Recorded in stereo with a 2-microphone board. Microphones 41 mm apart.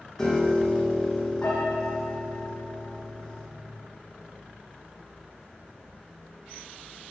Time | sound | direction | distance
0.2 | a piano | 15° left (ahead or behind) | 3 m